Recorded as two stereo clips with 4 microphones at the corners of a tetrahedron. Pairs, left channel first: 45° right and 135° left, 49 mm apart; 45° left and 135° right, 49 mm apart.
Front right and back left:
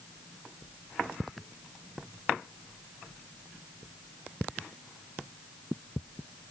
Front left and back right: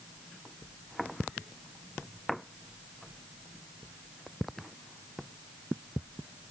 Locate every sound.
Only background noise.